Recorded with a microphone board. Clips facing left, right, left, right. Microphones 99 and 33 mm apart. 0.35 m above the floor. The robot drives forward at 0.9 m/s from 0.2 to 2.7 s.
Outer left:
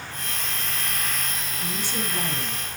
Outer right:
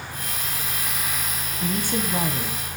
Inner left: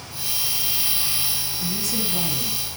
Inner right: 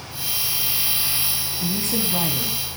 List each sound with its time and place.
1.6 s a woman speaking: 45° right (ahead or behind), 3.5 m; by 2.8 s 55° right (ahead or behind), 3 m